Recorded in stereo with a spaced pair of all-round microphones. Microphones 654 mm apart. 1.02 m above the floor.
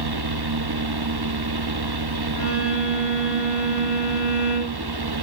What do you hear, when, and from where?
0.0 s a fan: 35° right (ahead or behind), 0.8 m
2.4 s a violin: 20° left (ahead or behind), 7.5 m